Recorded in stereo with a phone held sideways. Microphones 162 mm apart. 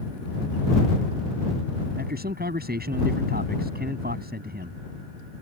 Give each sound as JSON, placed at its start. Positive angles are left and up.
{"t": 2.0, "sound": "a man speaking", "side_deg": -85}